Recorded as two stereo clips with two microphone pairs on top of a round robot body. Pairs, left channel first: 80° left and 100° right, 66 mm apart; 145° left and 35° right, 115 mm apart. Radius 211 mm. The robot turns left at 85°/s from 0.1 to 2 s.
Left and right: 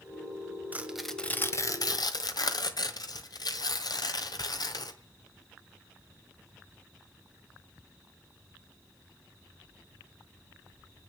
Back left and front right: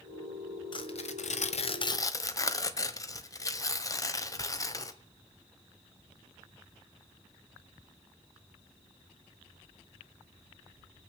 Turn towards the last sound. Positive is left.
turn(degrees=85)